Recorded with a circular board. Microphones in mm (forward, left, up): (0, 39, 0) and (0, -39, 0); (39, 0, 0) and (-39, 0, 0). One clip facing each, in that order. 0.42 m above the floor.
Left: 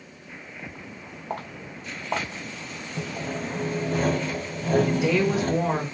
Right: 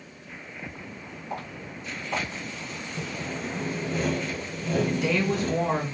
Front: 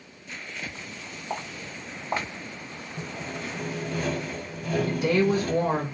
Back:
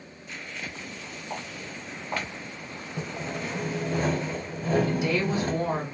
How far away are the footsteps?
About 1.7 m.